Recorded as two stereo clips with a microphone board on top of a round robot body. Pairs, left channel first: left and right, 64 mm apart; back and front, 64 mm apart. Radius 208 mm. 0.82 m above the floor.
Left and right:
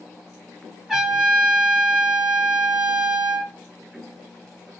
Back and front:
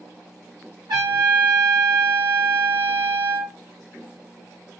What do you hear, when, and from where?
0.9 s a trumpet: 10° right, 0.9 m